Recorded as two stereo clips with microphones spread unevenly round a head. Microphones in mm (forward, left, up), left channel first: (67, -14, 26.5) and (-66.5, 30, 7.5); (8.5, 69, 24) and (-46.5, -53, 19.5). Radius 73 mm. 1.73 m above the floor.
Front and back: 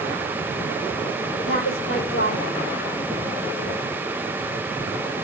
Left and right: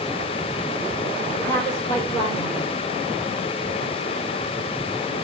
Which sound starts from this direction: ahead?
A woman speaking, at 1.4 s.